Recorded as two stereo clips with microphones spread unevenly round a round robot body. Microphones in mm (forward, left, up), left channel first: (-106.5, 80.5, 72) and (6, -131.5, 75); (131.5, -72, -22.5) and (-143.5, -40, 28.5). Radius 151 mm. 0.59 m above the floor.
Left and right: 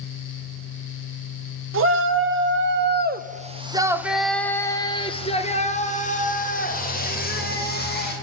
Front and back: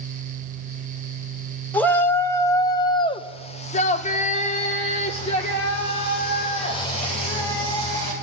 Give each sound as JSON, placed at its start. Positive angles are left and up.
{"t": 1.7, "sound": "a shout", "azimuth_deg": -85, "distance_m": 1.7}